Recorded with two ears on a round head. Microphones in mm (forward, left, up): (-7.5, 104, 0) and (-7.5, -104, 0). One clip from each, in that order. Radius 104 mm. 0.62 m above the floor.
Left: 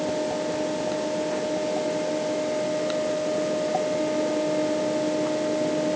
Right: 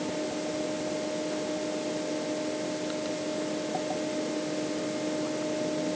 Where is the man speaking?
I don't hear a man speaking.